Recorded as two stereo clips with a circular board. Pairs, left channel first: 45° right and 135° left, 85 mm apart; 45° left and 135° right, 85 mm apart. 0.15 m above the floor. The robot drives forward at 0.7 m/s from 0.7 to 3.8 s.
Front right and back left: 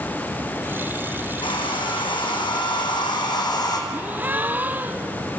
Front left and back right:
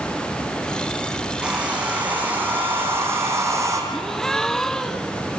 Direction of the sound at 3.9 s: 120° left.